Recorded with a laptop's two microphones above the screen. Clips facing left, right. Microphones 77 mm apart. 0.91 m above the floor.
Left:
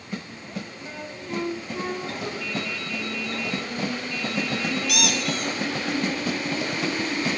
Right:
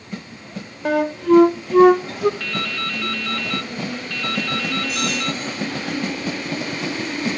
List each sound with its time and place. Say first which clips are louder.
0.8 s a flute: right 18 dB; 75° right (ahead or behind), 0.6 m
2.4 s dripping: right 4 dB; 75° right (ahead or behind), 0.7 m
4.9 s a squeak: right 2 dB; 75° left (ahead or behind), 4 m